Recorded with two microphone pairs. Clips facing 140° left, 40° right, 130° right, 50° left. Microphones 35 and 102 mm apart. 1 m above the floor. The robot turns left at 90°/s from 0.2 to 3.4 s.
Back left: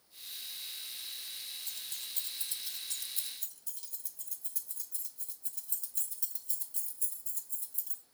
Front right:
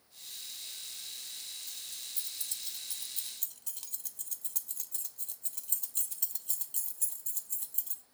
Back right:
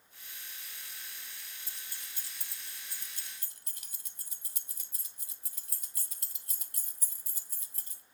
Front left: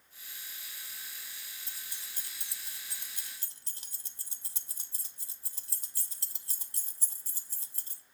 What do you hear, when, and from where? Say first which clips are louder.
1.7 s keys jangling: back left 2 dB, even; 145° left, 0.7 m; by 8.0 s 10° right, 0.7 m